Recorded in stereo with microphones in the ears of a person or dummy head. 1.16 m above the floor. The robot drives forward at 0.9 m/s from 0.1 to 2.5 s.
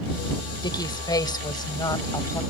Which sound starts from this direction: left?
A woman speaking, at 0.6 s.